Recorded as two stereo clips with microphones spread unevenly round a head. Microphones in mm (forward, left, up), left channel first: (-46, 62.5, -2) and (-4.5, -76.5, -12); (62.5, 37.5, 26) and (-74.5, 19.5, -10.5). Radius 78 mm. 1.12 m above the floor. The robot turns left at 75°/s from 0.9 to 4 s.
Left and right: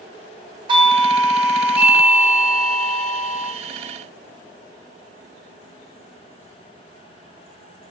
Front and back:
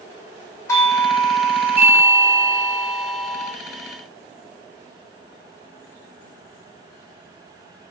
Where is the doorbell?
75° right, 0.7 m; by 3.5 s 90° left, 0.7 m.